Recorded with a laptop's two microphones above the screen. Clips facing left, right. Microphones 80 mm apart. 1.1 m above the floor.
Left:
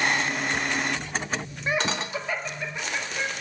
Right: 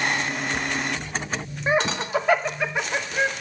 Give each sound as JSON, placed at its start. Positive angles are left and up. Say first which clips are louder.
{"t": 1.7, "sound": "laughter", "louder": "right 5 dB", "side_deg": -25, "distance_m": 1.1}